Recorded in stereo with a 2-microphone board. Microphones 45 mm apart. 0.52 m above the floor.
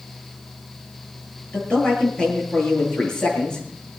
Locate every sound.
1.5 s a man speaking: 20° left (ahead or behind), 9 m